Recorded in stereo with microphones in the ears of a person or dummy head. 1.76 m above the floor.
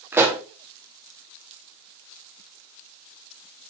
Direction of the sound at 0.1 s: 10° right (ahead or behind).